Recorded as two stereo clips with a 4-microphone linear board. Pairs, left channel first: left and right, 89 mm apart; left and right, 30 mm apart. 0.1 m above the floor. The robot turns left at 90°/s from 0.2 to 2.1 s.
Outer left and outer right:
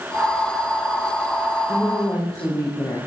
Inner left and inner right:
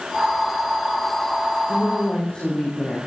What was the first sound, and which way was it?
A woman speaking, 175° right.